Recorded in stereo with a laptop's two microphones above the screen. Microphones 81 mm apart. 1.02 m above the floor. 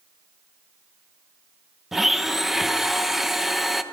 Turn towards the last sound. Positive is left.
turn(degrees=-5)  # may be behind; listen again after turning